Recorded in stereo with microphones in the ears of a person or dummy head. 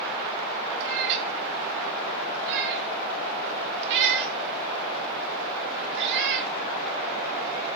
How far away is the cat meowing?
About 1.8 m.